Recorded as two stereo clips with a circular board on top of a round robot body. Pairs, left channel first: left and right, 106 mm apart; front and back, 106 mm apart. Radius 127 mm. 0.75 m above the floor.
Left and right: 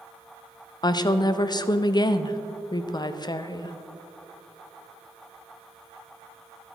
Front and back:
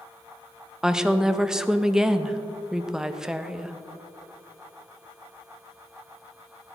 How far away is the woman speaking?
About 0.7 m.